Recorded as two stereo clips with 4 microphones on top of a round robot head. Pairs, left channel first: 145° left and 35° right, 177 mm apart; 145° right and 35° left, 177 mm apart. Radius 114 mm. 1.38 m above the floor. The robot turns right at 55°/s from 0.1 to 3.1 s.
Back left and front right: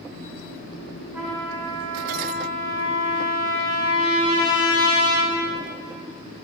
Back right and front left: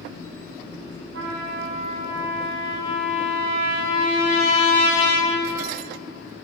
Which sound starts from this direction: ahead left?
A trumpet, at 1.1 s.